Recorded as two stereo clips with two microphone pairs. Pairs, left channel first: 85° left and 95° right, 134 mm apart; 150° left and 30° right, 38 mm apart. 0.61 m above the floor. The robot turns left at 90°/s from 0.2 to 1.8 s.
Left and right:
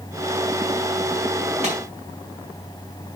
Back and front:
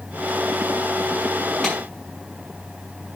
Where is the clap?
130° right, 6 m; by 1.8 s 140° right, 6 m.